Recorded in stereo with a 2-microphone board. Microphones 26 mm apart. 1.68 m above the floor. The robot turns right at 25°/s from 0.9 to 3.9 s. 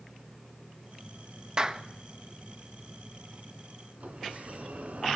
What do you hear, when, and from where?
1.6 s a clap: 30° right (ahead or behind), 1.6 m; by 1.8 s 20° right (ahead or behind), 1.6 m
4.0 s a sliding door: 60° right (ahead or behind), 3 m